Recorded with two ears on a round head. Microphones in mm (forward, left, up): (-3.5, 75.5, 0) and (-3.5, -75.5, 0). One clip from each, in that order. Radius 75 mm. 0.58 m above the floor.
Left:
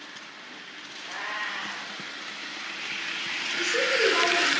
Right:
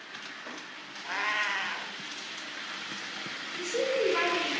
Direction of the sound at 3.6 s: 15° left (ahead or behind).